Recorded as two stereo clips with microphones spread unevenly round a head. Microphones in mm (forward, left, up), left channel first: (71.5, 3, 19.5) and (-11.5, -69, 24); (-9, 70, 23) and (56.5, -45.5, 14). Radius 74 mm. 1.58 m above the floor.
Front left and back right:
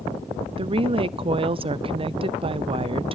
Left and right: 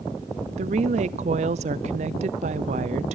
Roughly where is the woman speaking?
Right.